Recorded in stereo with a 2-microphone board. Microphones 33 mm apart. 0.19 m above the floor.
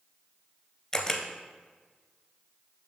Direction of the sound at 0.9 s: 20° left (ahead or behind).